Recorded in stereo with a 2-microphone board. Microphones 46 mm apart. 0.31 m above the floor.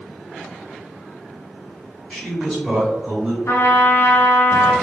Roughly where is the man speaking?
Left.